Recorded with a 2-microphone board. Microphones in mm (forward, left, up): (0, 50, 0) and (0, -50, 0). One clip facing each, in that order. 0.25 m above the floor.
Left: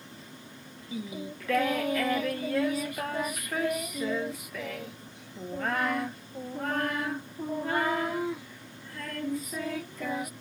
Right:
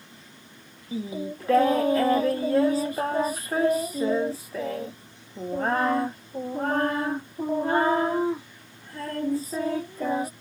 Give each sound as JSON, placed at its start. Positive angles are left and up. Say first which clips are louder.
{"t": 0.9, "sound": "singing", "louder": "right 6 dB", "side_deg": -30}